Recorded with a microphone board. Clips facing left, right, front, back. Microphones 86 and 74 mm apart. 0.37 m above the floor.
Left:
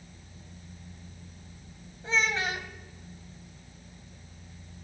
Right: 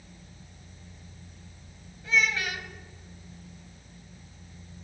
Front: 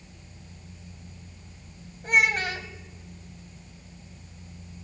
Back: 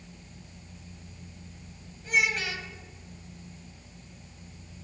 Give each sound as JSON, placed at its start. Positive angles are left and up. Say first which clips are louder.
{"t": 2.0, "sound": "a child speaking", "louder": "right 1 dB, front 4 dB", "azimuth_deg": 35, "distance_m": 1.6}